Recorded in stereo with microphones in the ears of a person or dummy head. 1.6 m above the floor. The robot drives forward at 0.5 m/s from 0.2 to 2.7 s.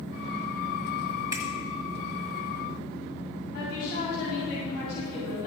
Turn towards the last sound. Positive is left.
turn(degrees=60)  # may be behind; listen again after turning